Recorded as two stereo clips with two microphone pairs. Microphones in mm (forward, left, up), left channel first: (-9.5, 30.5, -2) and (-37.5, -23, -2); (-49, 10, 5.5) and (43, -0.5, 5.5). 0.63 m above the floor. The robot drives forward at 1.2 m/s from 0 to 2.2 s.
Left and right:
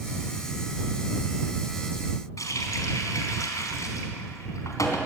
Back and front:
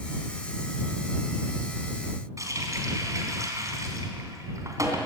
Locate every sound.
2.4 s a running tap: 45° left, 3.5 m